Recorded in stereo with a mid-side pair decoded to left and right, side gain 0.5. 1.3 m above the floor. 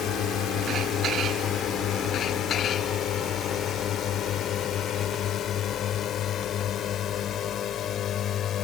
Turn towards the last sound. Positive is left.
turn(degrees=60)